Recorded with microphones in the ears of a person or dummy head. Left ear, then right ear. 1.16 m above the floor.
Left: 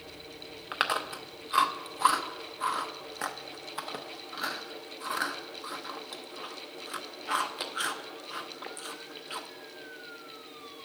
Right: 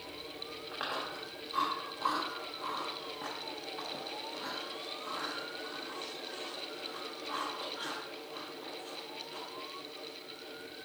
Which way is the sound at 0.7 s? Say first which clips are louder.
Left 9 dB; 50° left (ahead or behind).